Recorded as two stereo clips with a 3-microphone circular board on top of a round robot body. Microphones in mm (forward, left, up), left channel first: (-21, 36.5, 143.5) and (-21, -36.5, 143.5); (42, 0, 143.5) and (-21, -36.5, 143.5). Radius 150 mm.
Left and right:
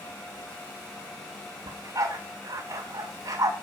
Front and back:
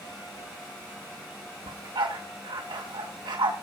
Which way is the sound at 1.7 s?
135° right.